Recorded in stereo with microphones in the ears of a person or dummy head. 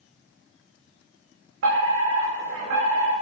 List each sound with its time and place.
1.6 s a fire alarm: 70° right (ahead or behind), 7.5 m